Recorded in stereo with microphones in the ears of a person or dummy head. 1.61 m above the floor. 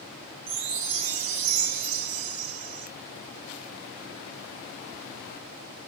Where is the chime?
40° right (ahead or behind), 5 m.